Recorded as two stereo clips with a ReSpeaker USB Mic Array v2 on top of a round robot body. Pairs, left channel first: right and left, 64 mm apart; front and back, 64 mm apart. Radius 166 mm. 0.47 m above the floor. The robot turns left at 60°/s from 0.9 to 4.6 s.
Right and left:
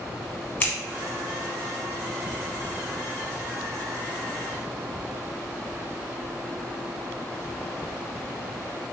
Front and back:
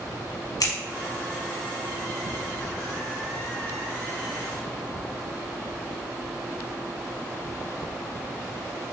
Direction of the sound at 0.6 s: 30° right.